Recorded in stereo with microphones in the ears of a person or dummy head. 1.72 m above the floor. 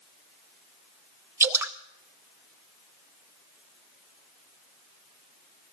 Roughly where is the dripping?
Centre.